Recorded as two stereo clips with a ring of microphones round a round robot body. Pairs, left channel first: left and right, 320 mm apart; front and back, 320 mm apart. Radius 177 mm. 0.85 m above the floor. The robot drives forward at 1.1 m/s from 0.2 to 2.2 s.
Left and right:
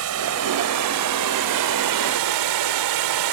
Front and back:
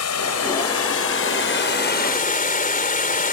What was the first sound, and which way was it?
Running water, 40° right.